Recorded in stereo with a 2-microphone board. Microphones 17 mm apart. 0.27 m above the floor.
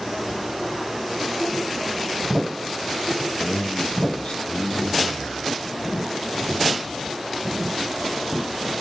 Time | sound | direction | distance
3.4 | a man speaking | 55° left (ahead or behind) | 2.5 m